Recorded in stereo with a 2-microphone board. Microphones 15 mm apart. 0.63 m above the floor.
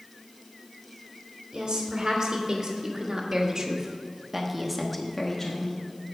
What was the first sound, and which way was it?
A woman speaking, 60° right (ahead or behind).